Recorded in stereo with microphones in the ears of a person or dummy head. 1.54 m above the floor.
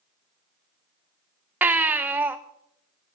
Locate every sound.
1.6 s a baby crying: 15° right (ahead or behind), 0.8 m